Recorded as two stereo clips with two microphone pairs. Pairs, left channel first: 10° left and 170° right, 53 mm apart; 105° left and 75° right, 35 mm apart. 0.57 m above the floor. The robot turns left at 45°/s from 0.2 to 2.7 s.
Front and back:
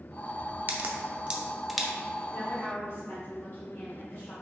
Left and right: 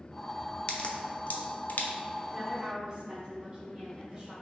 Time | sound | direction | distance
0.7 | a crack | 155° left | 0.6 m
2.3 | a woman speaking | straight ahead | 1.6 m